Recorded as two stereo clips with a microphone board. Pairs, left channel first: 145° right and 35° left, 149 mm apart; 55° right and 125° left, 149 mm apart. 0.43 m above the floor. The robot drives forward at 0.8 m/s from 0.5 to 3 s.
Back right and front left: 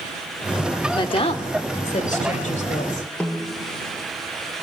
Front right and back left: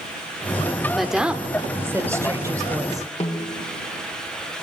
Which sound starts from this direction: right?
A snare drum, at 3.2 s.